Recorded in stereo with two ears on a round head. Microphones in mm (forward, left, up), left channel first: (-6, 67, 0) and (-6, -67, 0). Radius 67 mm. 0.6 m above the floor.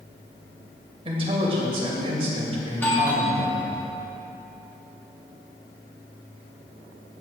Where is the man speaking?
40° right (ahead or behind), 2 m.